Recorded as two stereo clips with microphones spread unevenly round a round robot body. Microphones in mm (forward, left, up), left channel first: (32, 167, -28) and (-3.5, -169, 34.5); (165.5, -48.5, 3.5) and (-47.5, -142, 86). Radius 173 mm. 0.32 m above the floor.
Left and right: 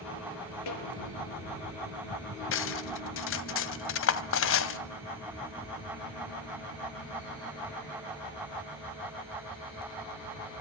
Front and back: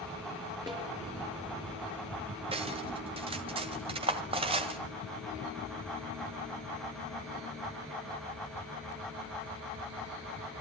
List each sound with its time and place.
0.7 s a snare drum: 125° left, 5 m
2.5 s cutlery clinking: 125° left, 0.9 m